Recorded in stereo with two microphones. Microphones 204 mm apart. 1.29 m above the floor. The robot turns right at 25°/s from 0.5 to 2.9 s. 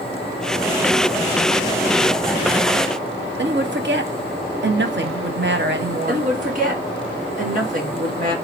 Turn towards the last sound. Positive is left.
turn(degrees=-40)  # may be behind; listen again after turning